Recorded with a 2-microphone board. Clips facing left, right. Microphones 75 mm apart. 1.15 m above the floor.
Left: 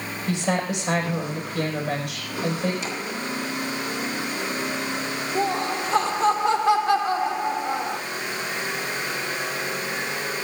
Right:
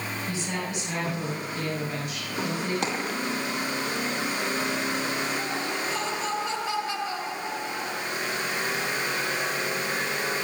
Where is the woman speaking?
90° left, 5 m.